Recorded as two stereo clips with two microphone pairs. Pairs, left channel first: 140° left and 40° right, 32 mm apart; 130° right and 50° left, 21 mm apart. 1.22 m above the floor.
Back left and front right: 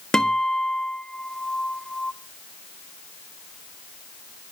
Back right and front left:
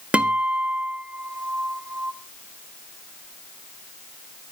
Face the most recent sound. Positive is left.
turn(degrees=70)